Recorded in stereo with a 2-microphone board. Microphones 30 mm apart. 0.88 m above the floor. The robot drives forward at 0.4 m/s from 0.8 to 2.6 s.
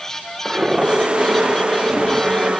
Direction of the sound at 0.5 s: 30° right (ahead or behind).